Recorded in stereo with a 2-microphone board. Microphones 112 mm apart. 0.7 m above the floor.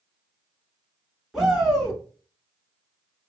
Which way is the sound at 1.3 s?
Centre (ahead or behind).